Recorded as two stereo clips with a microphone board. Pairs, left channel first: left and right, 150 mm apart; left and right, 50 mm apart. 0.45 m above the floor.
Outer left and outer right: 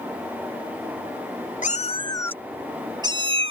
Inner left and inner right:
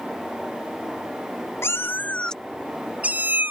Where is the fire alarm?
No fire alarm in this recording.